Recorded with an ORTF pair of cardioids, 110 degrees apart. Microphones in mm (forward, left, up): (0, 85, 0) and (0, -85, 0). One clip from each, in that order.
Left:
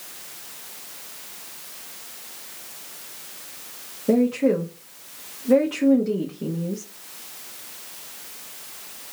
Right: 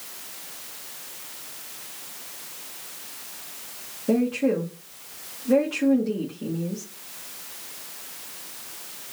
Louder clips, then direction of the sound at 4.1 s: Left 3 dB; 20° left.